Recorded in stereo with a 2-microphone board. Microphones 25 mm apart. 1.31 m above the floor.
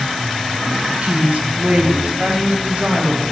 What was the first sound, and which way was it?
A woman speaking, 60° right (ahead or behind).